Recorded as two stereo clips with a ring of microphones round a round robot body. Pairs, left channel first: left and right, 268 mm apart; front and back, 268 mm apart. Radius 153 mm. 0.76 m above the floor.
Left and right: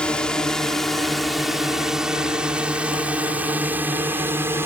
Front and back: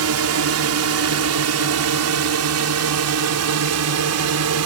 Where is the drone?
175° left; by 4.7 s 170° right.